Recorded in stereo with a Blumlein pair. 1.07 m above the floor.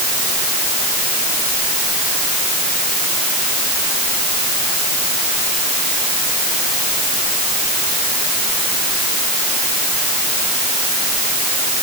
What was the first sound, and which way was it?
Only background noise.